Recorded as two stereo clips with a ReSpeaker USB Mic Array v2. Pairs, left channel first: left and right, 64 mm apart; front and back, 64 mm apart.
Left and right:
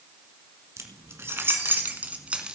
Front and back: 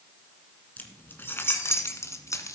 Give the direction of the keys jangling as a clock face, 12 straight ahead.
2 o'clock.